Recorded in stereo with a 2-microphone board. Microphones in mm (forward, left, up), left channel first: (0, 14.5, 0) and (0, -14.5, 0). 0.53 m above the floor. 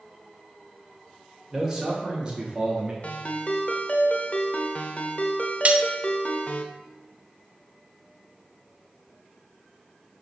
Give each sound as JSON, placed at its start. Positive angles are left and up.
{"t": 1.5, "sound": "a man speaking", "side_deg": -15, "distance_m": 1.9}
{"t": 3.0, "sound": "a ringtone", "side_deg": 45, "distance_m": 0.6}
{"t": 5.7, "sound": "cutlery clinking", "side_deg": -40, "distance_m": 0.5}